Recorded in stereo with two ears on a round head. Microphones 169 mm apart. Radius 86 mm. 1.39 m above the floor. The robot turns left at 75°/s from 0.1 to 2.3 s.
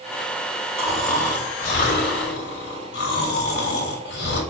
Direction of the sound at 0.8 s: 165° right.